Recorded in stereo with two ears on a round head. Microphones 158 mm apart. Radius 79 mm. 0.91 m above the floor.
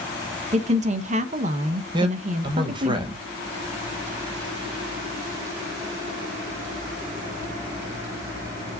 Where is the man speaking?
25° right (ahead or behind), 0.8 m.